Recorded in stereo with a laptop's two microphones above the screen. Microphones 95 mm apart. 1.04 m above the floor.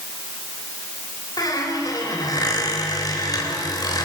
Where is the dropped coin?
I don't hear a dropped coin.